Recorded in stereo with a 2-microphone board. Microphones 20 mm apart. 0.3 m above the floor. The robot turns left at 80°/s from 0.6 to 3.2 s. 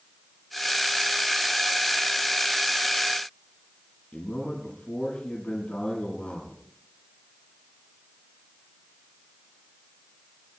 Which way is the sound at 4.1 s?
80° left.